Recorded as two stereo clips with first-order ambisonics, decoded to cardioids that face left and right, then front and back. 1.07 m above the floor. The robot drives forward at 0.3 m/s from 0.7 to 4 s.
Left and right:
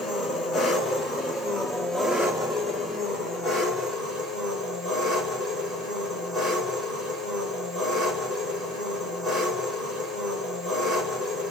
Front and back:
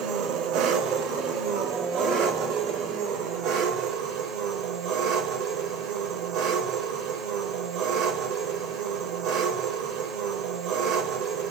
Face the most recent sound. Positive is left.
turn(degrees=170)